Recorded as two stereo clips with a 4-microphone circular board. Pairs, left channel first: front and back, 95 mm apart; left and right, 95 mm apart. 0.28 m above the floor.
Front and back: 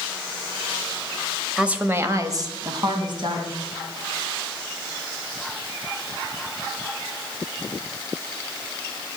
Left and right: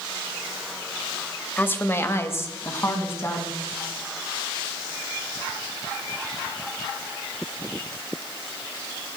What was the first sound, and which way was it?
A woman speaking, 105° left.